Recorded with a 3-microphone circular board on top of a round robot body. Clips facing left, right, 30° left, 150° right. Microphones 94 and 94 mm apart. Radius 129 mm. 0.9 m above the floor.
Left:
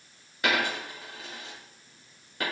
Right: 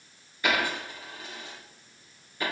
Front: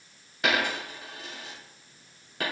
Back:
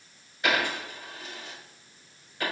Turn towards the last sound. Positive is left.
turn(degrees=55)